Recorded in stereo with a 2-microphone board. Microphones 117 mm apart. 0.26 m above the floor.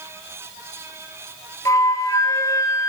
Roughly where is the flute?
Left.